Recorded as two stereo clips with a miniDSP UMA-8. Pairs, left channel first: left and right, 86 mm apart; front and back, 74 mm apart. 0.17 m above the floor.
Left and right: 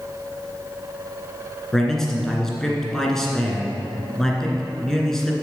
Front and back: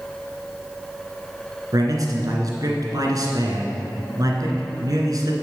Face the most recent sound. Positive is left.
turn(degrees=175)